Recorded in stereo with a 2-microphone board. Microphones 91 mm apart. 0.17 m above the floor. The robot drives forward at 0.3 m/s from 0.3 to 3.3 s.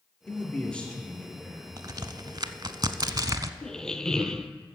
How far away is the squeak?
About 0.6 m.